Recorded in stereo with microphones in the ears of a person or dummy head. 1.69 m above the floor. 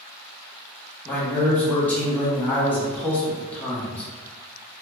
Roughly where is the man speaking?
Centre.